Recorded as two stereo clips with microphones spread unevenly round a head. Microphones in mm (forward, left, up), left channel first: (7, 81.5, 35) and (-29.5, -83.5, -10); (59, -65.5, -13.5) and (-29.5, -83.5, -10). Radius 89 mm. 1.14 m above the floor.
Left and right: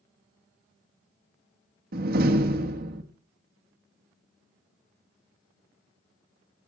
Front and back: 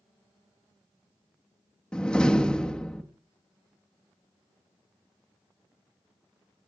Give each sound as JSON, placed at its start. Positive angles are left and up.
{"t": 1.9, "sound": "a door slam", "azimuth_deg": -70, "distance_m": 1.4}